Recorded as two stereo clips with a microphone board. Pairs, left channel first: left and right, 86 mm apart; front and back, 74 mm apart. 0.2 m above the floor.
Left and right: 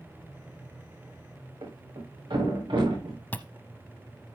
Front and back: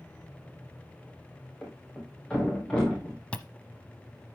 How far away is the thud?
About 5 m.